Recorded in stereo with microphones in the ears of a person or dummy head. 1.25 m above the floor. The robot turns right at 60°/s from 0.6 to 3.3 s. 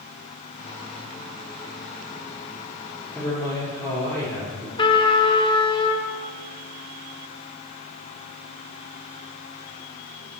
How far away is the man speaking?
About 3 m.